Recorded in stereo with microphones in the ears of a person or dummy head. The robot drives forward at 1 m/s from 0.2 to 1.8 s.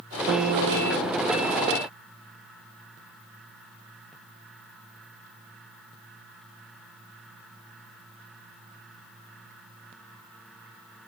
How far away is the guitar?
About 1.5 m.